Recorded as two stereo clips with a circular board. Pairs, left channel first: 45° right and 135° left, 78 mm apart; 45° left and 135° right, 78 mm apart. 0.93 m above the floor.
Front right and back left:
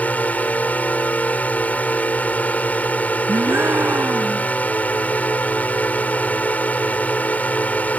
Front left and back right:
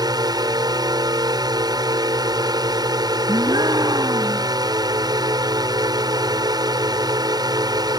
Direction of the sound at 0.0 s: 115° right.